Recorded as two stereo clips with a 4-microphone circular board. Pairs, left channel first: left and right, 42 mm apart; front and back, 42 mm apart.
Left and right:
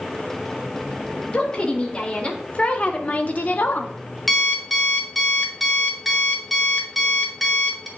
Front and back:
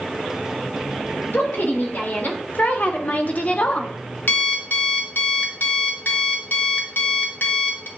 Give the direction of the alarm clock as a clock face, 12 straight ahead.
12 o'clock.